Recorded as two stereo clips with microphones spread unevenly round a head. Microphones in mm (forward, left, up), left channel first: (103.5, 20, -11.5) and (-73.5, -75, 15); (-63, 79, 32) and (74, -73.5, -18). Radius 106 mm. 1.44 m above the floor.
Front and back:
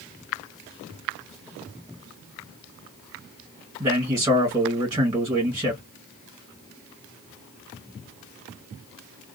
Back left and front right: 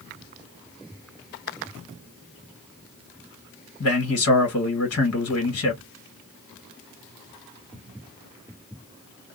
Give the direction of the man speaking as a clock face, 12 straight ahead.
7 o'clock.